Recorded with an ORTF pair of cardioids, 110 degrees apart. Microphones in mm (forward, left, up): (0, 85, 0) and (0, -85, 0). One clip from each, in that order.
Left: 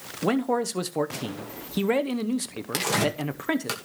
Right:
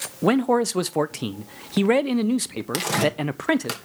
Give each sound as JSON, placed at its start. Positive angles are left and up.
{"t": 0.2, "sound": "a man speaking", "azimuth_deg": -20, "distance_m": 0.7}
{"t": 2.7, "sound": "tearing paper", "azimuth_deg": -10, "distance_m": 2.5}